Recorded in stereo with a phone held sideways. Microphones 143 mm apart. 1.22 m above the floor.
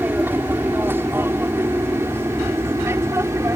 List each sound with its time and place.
0.0 s an aircraft: 15° right (ahead or behind); by 3.6 s 20° right (ahead or behind)